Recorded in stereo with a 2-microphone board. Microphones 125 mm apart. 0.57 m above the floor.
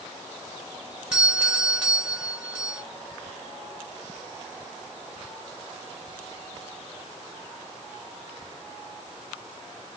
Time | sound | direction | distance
1.1 | a doorbell | 5° right (ahead or behind) | 1.6 m